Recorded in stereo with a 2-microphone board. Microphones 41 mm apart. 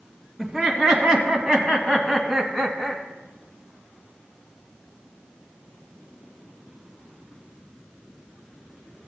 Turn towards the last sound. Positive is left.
turn(degrees=-5)  # may be behind; listen again after turning